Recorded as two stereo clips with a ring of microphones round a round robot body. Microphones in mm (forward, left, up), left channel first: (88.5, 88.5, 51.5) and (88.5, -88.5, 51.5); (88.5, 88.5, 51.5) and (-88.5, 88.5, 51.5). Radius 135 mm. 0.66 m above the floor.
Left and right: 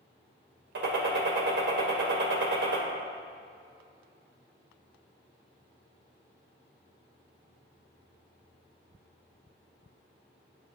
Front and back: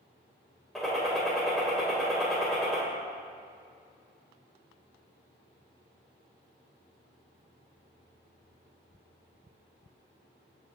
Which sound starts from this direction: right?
A gunshot, at 0.8 s.